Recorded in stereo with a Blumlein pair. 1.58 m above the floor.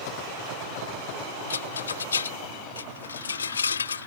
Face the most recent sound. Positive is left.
turn(degrees=70)